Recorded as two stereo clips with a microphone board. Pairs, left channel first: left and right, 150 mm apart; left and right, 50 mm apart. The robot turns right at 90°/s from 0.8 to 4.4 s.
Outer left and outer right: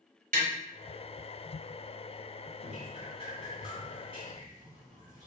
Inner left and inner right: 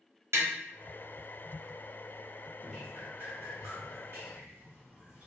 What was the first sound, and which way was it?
Tapping, 70° right (ahead or behind).